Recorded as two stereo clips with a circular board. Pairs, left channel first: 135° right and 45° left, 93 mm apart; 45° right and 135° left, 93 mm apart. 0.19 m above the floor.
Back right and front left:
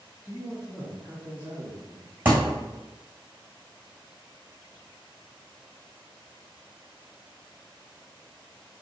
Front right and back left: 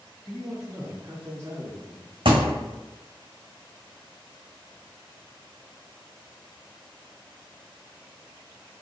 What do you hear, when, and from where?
0.2 s a man speaking: 135° right, 1.1 m; by 2.1 s 155° left, 1.4 m
2.2 s a thud: 115° left, 0.9 m